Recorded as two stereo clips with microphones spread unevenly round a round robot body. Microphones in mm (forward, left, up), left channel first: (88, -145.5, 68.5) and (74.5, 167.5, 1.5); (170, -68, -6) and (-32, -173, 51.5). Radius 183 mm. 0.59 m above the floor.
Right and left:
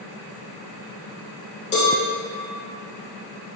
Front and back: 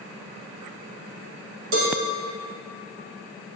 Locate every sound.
1.7 s a cowbell: 155° right, 1.2 m